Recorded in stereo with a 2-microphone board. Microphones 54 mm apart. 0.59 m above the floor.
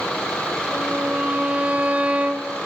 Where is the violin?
25° right (ahead or behind), 0.5 m.